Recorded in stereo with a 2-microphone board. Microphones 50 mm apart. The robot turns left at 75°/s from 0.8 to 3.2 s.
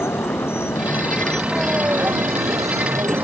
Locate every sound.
0.0 s a vehicle: 55° left (ahead or behind); by 3.2 s 45° right (ahead or behind)